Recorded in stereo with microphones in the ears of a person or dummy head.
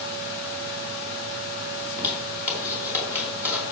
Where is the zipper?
10° right (ahead or behind), 4 m.